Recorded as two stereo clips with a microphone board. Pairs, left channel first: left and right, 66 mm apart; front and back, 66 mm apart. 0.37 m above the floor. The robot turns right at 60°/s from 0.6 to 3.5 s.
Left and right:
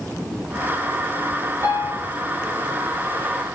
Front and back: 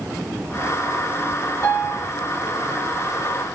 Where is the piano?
35° right, 6.5 m; by 2.1 s 10° right, 6.5 m.